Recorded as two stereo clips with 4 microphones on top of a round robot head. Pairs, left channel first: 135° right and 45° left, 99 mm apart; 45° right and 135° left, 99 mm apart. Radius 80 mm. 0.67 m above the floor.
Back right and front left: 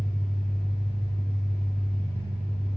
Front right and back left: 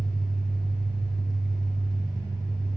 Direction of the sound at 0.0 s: 80° left.